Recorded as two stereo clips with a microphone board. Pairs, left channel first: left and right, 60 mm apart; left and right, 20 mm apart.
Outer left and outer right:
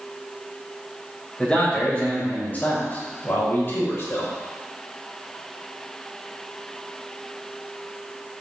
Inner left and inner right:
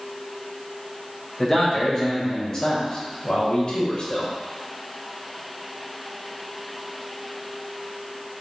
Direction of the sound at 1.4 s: 20° left (ahead or behind).